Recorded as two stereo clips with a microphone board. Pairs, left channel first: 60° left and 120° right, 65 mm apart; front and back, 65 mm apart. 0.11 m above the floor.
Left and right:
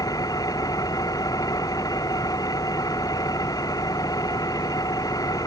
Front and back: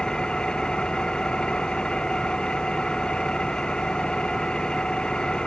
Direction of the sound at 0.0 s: 80° left.